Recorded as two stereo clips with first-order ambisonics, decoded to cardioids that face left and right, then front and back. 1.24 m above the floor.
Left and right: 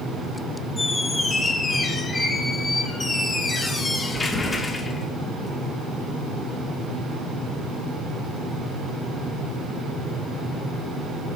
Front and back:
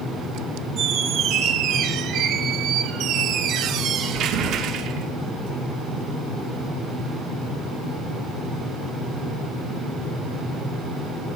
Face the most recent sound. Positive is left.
turn(degrees=165)